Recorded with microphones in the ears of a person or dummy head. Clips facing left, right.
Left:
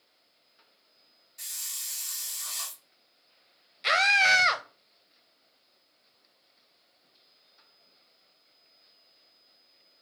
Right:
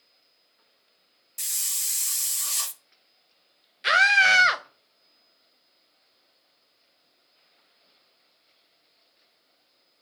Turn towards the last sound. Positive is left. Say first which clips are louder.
# right 2 dB
turn(degrees=-15)  # may be behind; listen again after turning